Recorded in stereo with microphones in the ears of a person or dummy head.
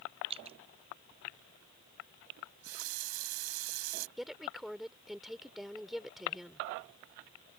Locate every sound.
0.3 s dripping: 30° right (ahead or behind)
2.4 s a running tap: 85° right
4.2 s a woman speaking: 5° right (ahead or behind)